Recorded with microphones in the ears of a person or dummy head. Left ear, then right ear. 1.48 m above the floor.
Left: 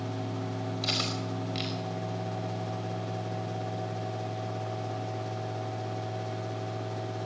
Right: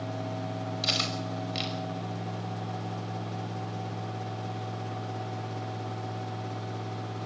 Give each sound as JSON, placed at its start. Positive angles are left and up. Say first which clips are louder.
{"t": 0.8, "sound": "cutlery clinking", "louder": "right 2 dB", "side_deg": -15, "distance_m": 5.0}